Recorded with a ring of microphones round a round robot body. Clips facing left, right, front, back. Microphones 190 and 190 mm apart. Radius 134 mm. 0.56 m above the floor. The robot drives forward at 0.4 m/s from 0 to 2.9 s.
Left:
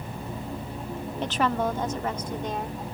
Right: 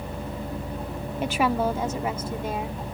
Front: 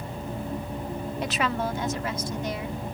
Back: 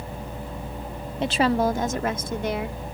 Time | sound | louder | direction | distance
1.2 | a woman speaking | right 2 dB, back 8 dB | 160° right | ?